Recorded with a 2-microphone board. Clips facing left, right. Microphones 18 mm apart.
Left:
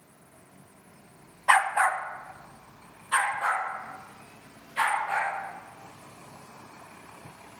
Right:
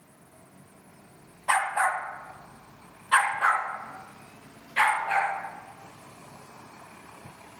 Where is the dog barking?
25° left (ahead or behind), 1.1 m; by 5.3 s 45° right (ahead or behind), 4 m.